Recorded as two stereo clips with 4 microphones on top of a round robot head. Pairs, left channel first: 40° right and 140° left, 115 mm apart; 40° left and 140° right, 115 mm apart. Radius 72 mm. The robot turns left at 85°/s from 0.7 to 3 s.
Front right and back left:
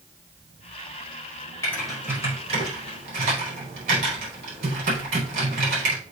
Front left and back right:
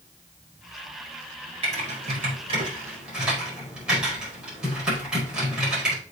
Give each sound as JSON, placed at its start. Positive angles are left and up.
{"t": 1.6, "sound": "typing on a keyboard", "azimuth_deg": -105, "distance_m": 5.0}